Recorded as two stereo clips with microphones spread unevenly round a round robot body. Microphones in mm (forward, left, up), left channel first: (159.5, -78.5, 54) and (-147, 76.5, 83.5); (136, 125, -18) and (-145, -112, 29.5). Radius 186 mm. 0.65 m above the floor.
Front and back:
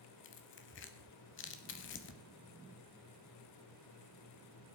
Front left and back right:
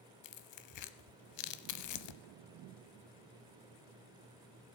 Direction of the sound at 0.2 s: 20° left.